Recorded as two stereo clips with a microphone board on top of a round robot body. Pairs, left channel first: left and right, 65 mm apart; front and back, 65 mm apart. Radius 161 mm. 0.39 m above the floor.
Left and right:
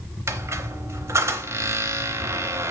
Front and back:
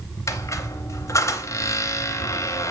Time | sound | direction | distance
0.3 | a squeak | 45° right | 0.6 m